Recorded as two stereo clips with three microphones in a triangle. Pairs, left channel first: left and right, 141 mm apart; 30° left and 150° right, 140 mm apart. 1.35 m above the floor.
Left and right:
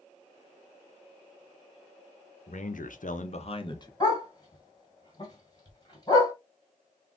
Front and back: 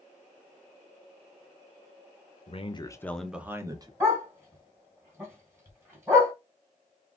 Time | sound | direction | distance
2.5 | a man speaking | 65° left | 0.7 m
4.0 | a dog barking | 140° left | 1.8 m